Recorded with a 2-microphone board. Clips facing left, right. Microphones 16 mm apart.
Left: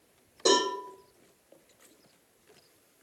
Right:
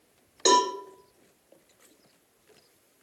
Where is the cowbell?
50° right (ahead or behind), 1.2 m.